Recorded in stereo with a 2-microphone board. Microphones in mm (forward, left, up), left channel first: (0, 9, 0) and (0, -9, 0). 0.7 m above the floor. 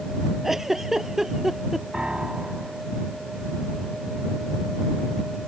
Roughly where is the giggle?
Centre.